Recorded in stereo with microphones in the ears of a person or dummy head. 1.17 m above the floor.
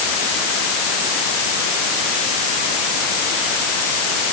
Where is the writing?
No writing in this recording.